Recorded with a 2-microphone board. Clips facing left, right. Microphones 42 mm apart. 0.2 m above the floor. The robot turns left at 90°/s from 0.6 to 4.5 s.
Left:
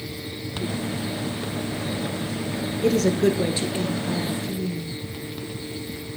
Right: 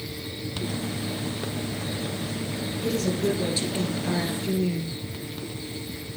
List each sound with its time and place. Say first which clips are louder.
2.8 s a woman speaking: left 6 dB; 95° left, 3 m; by 5.0 s 55° right, 3 m